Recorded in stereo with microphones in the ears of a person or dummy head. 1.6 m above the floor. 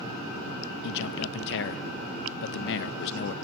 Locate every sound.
0.8 s a man speaking: 70° left (ahead or behind), 0.6 m